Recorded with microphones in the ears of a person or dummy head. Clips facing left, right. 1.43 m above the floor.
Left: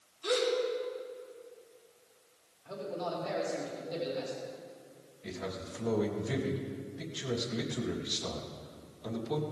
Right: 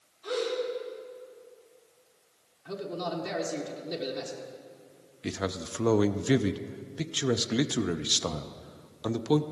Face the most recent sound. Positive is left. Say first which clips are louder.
# right 6 dB
turn(degrees=-80)